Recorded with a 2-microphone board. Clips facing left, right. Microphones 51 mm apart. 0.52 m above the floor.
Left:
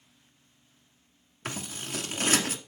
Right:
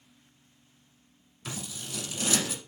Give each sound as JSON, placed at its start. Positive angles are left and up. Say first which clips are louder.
{"t": 1.4, "sound": "scissors", "louder": "left 3 dB", "side_deg": 50, "distance_m": 1.1}